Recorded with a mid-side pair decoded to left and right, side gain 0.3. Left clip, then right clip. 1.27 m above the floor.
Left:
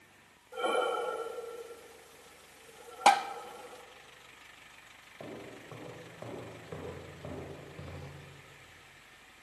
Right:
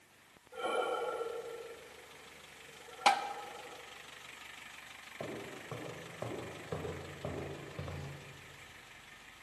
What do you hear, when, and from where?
0.5 s breathing: 55° left, 2.5 m
3.1 s tapping: 55° left, 0.8 m
5.2 s footsteps: 40° right, 8 m